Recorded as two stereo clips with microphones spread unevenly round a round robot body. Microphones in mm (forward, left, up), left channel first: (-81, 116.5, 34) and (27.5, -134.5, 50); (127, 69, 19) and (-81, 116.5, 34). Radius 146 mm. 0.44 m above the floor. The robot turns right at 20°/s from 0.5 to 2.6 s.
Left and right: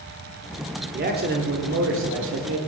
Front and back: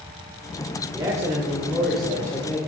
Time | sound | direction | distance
0.9 | a man speaking | 120° right | 1.2 m